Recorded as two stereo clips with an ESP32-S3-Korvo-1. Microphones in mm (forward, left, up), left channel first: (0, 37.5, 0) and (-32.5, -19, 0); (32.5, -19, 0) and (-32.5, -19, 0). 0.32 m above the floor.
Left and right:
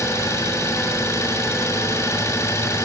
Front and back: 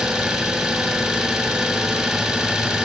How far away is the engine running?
About 3 m.